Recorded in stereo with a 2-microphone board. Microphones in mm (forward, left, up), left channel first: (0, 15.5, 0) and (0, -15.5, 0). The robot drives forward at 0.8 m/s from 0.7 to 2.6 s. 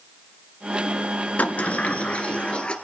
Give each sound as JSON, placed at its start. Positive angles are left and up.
{"t": 1.4, "sound": "a sliding door", "side_deg": 55, "distance_m": 1.5}